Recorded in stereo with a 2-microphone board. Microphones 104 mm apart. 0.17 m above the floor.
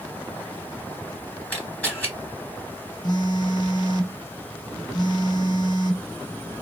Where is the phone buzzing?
40° left (ahead or behind), 0.6 m.